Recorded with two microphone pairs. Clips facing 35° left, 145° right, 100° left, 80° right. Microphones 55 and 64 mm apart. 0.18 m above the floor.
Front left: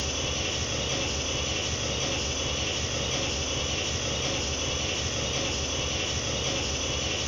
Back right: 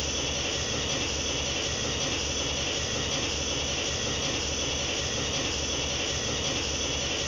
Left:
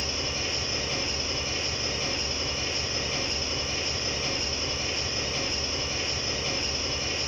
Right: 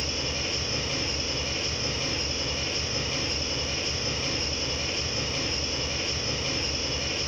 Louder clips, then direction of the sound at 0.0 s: Even, even; 30° left.